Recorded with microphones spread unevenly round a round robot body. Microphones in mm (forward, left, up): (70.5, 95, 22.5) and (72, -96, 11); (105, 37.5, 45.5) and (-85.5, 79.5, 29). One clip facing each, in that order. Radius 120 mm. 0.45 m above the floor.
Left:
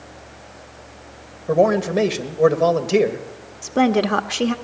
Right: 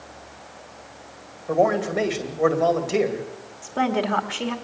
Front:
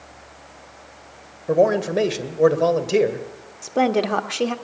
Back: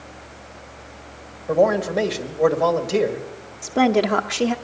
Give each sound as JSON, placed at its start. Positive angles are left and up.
{"t": 1.5, "sound": "a man speaking", "azimuth_deg": 50, "distance_m": 2.0}
{"t": 3.6, "sound": "a woman speaking", "azimuth_deg": 85, "distance_m": 1.0}